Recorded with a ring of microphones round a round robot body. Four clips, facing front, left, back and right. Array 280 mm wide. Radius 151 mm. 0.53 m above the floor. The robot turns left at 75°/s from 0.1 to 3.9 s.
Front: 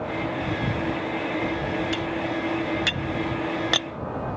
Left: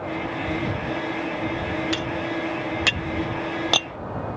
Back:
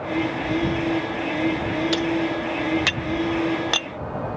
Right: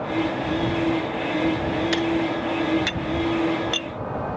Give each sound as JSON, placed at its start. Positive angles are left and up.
{"t": 1.9, "sound": "cutlery clinking", "azimuth_deg": -160}